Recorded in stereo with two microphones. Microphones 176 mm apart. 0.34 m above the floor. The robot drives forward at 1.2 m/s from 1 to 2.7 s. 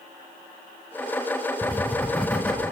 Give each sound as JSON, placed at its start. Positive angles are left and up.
{"t": 1.6, "sound": "writing", "side_deg": 10, "distance_m": 1.9}